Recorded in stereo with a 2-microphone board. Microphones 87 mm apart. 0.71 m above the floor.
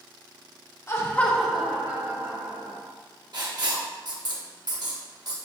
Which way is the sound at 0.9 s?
35° left (ahead or behind).